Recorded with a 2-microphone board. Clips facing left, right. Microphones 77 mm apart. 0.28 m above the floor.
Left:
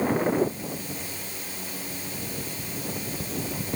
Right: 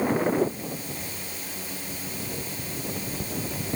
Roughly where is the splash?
I don't hear a splash.